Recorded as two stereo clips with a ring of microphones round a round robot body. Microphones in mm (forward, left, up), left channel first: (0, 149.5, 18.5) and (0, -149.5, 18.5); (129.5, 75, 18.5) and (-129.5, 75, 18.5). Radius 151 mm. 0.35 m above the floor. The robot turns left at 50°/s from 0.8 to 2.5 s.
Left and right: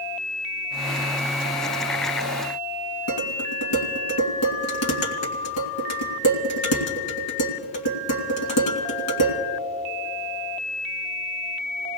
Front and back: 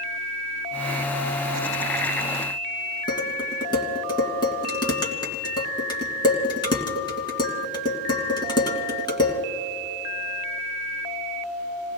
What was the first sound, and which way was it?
Dishes clattering, 75° left.